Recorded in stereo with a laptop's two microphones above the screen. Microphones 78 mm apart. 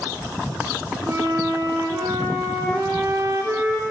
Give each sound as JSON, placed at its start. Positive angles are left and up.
{"t": 1.1, "sound": "a flute", "side_deg": -45, "distance_m": 0.9}